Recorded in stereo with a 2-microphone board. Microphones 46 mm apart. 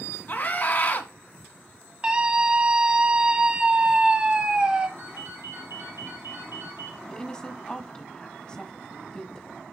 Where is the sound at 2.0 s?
20° right (ahead or behind), 1.3 m.